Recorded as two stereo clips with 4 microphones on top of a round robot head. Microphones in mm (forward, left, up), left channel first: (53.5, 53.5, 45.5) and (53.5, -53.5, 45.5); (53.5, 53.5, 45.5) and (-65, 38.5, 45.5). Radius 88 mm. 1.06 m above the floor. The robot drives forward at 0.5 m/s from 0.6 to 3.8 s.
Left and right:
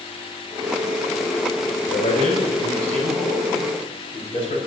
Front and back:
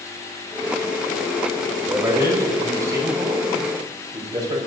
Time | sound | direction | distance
1.8 | a man speaking | 120° left | 6 m